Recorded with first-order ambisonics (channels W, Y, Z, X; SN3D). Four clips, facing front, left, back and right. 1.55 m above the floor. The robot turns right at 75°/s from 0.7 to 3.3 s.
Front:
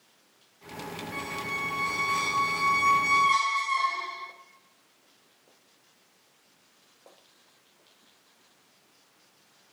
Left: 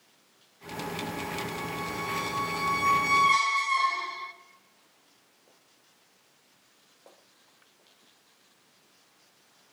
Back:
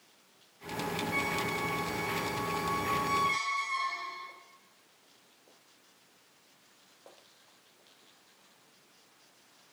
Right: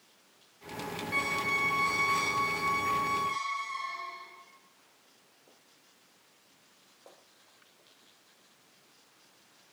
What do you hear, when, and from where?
1.1 s a squeak: 105° right, 2 m; by 4.3 s 60° left, 2 m